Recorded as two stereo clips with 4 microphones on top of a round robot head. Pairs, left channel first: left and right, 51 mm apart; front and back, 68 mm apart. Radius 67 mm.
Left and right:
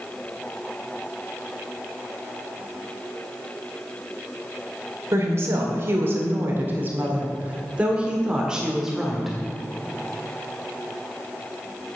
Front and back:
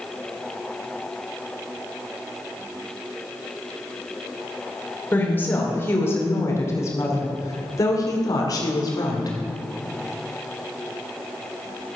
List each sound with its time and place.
5.1 s a woman speaking: 60° right, 2.5 m; by 9.4 s 5° right, 2.5 m